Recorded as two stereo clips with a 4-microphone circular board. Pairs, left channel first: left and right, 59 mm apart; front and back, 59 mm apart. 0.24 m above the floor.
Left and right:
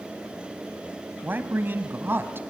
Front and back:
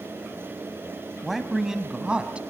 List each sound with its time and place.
1.2 s a man speaking: 90° right, 1.3 m; by 2.4 s 115° right, 1.6 m